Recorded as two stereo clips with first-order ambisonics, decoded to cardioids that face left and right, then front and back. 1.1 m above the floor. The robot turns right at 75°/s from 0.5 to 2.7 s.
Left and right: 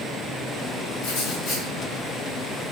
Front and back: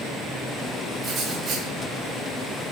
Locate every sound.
1.0 s writing: 105° left, 3.5 m; by 1.7 s 155° left, 3.5 m